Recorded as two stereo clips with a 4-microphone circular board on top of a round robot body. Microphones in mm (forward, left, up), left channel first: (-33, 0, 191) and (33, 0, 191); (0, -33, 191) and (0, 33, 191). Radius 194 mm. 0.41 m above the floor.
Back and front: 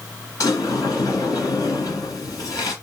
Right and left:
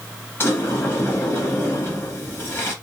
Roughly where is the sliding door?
Behind right.